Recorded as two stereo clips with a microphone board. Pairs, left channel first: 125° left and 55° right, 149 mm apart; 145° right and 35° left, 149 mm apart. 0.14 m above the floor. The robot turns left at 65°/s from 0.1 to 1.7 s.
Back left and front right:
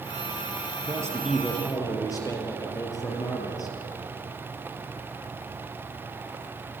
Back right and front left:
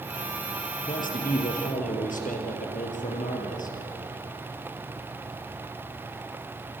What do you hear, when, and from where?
0.8 s a man speaking: 110° right, 4.5 m; by 3.8 s 170° right, 4.5 m